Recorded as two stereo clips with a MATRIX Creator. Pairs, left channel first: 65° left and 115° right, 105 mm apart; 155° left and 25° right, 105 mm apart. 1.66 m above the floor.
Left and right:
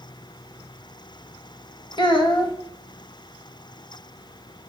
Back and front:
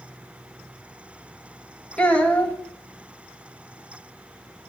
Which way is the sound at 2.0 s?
85° left.